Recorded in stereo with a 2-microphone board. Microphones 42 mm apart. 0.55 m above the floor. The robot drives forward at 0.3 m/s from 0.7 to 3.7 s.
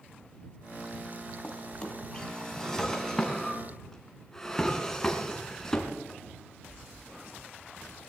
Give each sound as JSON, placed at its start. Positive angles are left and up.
{"t": 1.4, "sound": "a drawer", "side_deg": 15, "distance_m": 1.5}